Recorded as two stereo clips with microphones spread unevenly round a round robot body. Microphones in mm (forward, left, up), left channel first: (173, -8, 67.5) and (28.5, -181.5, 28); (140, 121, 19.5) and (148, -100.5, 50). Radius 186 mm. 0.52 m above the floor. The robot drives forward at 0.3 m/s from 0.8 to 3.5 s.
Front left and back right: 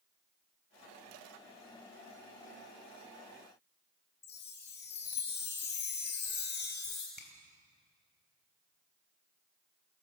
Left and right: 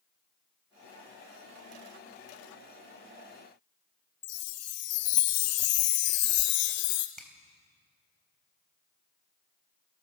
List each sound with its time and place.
4.2 s a chime: 115° left, 0.9 m
7.2 s a finger snap: 5° left, 3.5 m